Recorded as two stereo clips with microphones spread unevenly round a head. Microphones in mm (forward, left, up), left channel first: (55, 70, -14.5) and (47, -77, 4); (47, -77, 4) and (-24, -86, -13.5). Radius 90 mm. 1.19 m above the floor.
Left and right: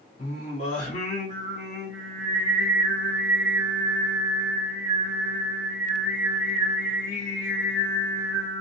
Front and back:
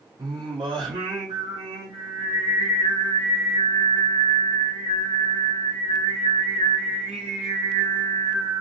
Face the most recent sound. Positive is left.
turn(degrees=140)